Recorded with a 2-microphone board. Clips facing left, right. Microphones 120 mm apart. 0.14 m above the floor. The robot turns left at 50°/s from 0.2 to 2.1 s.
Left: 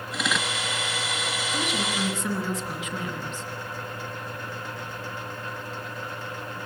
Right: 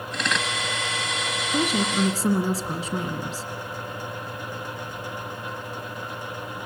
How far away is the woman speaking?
About 2.5 m.